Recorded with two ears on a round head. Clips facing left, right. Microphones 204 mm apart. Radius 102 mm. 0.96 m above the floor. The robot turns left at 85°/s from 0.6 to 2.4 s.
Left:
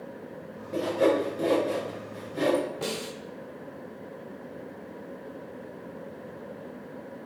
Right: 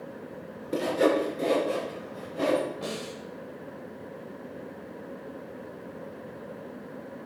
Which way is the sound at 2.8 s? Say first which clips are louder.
Left 2 dB; 70° left (ahead or behind).